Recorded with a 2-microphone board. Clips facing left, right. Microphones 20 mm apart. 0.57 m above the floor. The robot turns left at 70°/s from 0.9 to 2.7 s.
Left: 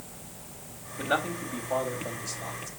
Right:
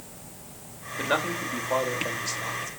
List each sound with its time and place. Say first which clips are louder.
1.0 s a man speaking: right 2 dB; 50° right, 2.5 m; by 2.7 s 170° right, 2.5 m